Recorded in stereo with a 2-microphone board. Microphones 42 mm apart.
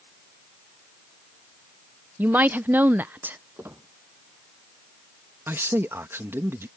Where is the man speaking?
80° right.